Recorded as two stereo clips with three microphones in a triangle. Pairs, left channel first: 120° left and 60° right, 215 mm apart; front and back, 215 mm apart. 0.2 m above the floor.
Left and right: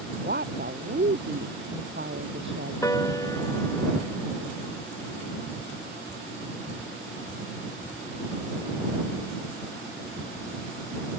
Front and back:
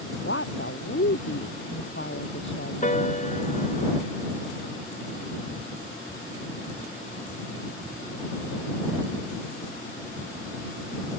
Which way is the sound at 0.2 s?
20° right.